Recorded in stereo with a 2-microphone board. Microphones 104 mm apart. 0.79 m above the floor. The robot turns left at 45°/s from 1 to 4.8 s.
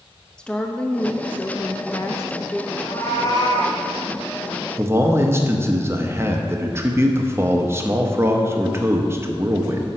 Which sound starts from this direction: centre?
A woman speaking, at 0.4 s.